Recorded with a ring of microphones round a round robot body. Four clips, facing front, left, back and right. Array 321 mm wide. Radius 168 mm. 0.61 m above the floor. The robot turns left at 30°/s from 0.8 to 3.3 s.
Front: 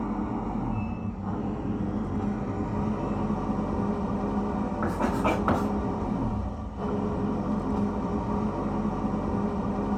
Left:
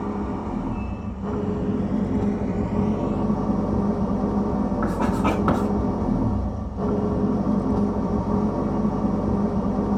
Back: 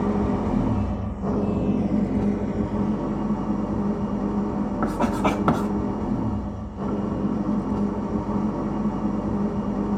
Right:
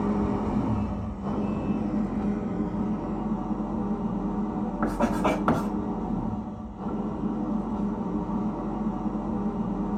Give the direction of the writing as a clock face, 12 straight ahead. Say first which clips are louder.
Right 1 dB, back 4 dB; 6 o'clock.